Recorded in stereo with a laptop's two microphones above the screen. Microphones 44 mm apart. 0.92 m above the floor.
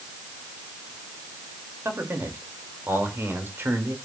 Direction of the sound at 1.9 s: 65° right (ahead or behind).